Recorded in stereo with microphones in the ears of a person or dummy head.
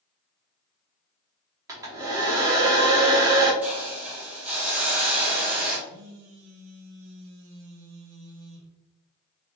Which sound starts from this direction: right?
A phone buzzing, at 5.9 s.